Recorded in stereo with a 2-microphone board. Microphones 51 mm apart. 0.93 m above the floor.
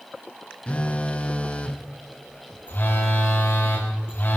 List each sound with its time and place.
0.7 s a phone buzzing: 25° left (ahead or behind), 1.0 m
2.7 s a phone buzzing: 40° left (ahead or behind), 5 m